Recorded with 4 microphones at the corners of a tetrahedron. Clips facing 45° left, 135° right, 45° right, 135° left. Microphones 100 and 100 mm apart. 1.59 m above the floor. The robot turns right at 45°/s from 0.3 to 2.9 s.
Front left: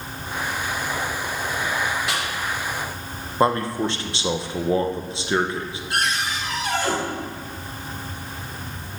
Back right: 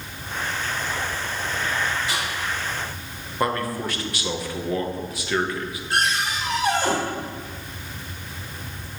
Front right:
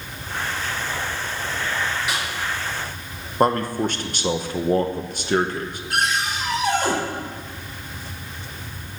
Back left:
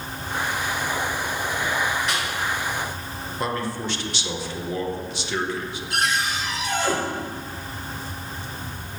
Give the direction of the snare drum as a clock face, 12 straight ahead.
11 o'clock.